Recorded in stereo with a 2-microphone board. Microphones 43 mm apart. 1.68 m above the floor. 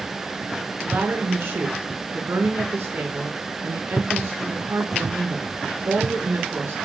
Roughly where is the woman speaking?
Right.